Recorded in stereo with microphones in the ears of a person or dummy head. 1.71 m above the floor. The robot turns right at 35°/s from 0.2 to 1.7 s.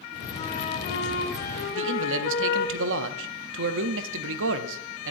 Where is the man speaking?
70° right (ahead or behind), 0.8 m.